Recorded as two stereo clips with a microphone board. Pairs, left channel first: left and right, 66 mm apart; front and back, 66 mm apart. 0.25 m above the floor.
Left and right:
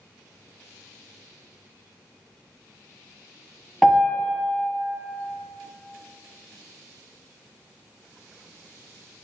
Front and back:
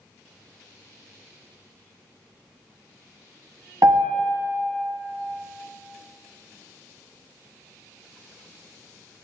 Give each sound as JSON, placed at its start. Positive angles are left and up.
{"t": 3.8, "sound": "a piano", "azimuth_deg": 180, "distance_m": 1.2}